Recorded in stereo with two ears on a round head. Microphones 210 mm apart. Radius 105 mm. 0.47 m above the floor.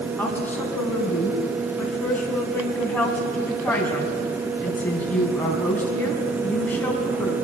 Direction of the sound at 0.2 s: 10° left (ahead or behind).